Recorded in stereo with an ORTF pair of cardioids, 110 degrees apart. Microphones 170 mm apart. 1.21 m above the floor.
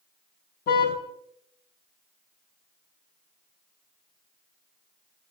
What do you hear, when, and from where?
0.7 s a car horn: 65° left, 5.5 m